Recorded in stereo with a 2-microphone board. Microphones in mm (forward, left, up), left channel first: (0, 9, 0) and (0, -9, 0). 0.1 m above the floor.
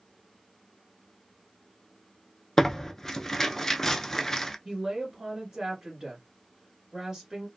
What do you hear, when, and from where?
2.6 s tearing paper: 20° left (ahead or behind), 0.6 m
4.7 s a woman speaking: 20° right (ahead or behind), 1.6 m